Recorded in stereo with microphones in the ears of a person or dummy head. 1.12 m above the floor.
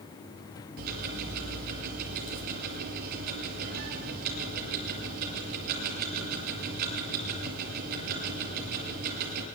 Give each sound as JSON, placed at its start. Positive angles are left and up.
{"t": 0.8, "sound": "ticking", "side_deg": -50, "distance_m": 4.5}